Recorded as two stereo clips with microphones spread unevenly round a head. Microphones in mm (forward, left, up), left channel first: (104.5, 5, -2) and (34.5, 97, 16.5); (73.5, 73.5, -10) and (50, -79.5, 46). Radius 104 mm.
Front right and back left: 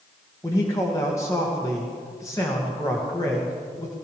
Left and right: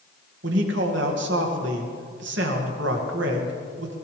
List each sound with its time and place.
0.4 s a man speaking: 130° right, 2 m